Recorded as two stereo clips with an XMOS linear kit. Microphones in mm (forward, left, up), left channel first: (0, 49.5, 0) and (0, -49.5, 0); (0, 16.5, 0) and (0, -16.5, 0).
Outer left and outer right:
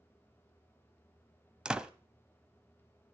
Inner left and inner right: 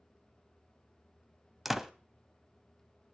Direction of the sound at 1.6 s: 10° right (ahead or behind).